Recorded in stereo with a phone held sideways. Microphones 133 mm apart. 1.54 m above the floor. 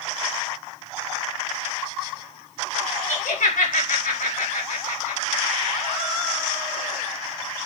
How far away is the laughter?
About 4.5 m.